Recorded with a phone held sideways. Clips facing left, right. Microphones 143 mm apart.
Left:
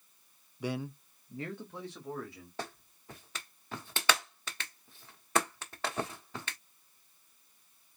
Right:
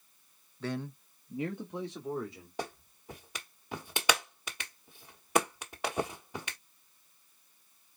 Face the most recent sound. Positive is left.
turn(degrees=-15)  # may be behind; listen again after turning